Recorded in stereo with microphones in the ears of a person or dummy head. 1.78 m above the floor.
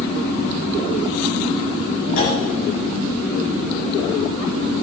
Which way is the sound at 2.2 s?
50° left (ahead or behind).